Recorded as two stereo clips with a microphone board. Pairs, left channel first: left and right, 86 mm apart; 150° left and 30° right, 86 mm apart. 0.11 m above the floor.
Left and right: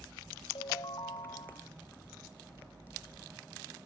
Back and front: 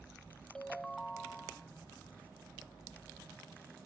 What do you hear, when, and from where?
0.6 s a ringtone: 70° left